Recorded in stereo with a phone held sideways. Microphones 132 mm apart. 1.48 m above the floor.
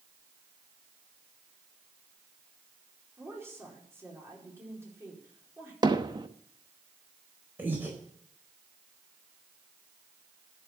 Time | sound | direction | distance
3.2 | a woman speaking | 20° right (ahead or behind) | 4.5 m
5.8 | hammering | 35° right (ahead or behind) | 0.9 m
7.6 | breathing | 15° right (ahead or behind) | 4 m